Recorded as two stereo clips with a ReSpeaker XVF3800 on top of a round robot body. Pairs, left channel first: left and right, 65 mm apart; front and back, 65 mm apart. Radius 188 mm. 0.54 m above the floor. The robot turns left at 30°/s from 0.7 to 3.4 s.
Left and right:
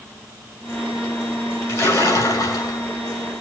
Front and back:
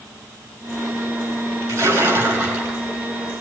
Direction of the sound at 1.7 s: 130° left.